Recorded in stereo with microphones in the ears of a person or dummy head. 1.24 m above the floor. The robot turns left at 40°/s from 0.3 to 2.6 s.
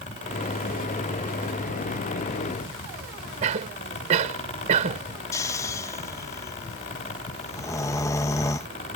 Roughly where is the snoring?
Centre.